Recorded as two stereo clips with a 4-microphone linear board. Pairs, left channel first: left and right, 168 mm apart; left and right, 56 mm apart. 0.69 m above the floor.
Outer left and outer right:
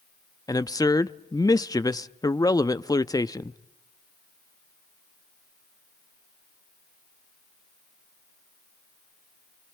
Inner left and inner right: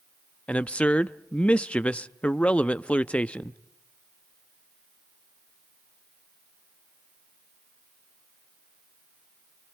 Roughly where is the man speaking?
Left.